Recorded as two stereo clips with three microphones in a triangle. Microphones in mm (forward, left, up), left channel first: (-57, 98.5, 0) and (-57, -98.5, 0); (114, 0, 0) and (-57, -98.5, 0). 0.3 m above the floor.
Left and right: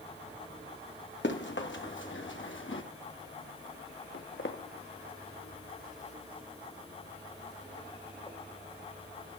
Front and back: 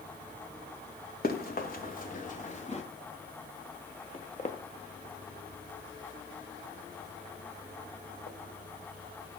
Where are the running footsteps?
70° left, 3 m; by 2.8 s 85° left, 2.5 m.